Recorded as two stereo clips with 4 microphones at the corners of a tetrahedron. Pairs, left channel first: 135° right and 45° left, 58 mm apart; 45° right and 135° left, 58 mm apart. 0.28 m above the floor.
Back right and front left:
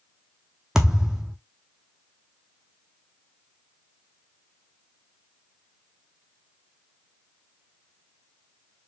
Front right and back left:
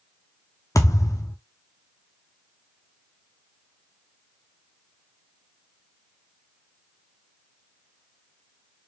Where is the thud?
35° right, 0.9 m.